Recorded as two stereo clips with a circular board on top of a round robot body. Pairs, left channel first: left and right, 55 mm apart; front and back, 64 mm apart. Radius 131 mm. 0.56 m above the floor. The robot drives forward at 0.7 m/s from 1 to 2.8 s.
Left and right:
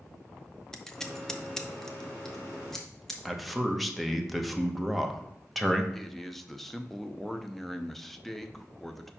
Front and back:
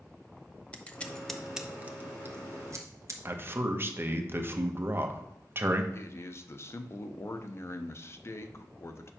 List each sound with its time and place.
0.7 s scissors: 25° left, 0.9 m; by 3.1 s 175° left, 1.3 m
3.2 s a man speaking: straight behind, 1.0 m
5.9 s a man speaking: 5° left, 0.8 m